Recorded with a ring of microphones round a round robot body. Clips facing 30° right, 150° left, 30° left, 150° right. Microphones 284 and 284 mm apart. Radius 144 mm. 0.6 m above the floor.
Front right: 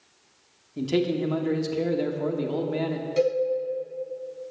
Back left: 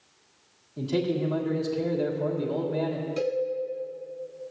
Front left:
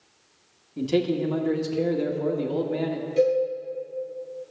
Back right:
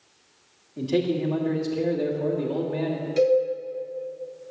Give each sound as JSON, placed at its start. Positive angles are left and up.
{"t": 0.8, "sound": "a man speaking", "azimuth_deg": -20, "distance_m": 1.7}
{"t": 3.2, "sound": "a cowbell", "azimuth_deg": -80, "distance_m": 4.5}